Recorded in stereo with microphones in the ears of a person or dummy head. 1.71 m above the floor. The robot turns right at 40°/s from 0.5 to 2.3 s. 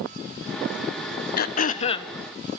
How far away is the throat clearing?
About 1.1 m.